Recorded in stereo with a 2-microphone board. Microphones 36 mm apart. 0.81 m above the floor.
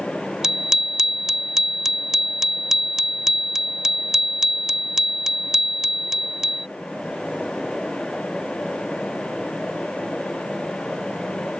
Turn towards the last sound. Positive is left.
turn(degrees=-10)  # may be behind; listen again after turning